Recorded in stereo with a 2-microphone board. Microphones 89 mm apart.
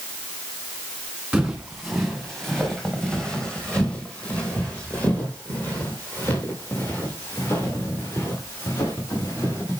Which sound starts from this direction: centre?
Footsteps, at 1.3 s.